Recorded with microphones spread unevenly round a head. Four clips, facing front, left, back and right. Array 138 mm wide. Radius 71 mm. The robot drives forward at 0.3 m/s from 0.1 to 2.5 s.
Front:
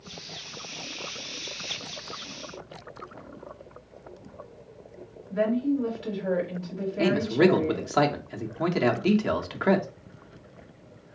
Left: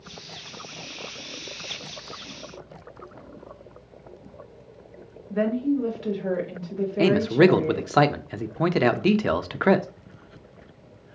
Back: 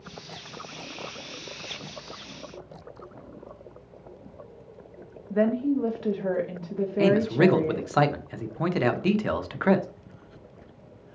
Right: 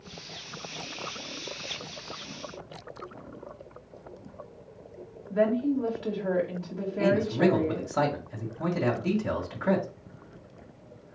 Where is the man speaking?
80° left, 0.5 m.